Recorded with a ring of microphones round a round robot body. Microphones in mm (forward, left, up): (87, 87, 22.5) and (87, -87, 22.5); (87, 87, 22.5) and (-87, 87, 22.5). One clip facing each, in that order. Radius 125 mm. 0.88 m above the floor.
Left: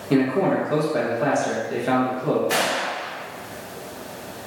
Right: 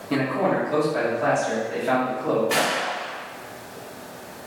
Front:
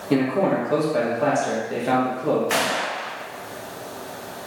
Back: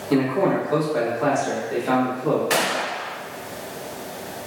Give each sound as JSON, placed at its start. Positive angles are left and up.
{"t": 0.1, "sound": "a man speaking", "azimuth_deg": 60, "distance_m": 1.1}
{"t": 2.5, "sound": "a gunshot", "azimuth_deg": 135, "distance_m": 0.8}